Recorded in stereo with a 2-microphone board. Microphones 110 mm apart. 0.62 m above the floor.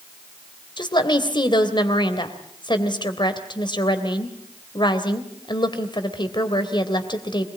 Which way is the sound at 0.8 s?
45° left (ahead or behind).